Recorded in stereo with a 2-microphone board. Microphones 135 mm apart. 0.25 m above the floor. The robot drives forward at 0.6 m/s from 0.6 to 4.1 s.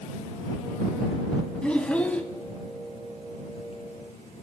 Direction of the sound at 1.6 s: 10° left (ahead or behind).